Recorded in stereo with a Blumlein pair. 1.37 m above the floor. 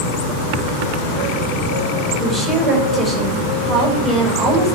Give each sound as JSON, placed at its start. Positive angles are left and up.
{"t": 2.2, "sound": "a woman speaking", "azimuth_deg": 10, "distance_m": 6.0}